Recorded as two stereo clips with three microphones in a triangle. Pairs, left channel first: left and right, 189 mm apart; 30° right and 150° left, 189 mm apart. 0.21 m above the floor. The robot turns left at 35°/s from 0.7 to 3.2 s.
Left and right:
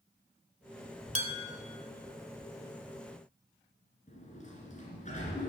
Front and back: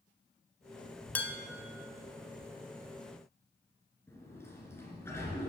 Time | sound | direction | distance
1.1 | dishes clattering | 105° right | 0.9 m
4.1 | a sliding door | 45° left | 2.5 m